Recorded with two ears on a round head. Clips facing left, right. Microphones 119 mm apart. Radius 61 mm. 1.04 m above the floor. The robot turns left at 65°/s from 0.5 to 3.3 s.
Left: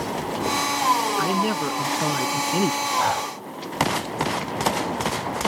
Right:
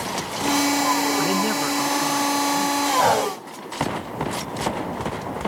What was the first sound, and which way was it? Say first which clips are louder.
A man speaking: right 1 dB; 165° right.